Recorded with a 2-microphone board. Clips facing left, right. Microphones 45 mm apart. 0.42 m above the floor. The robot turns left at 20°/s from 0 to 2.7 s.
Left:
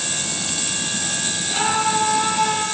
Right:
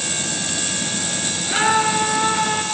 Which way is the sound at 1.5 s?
50° right (ahead or behind).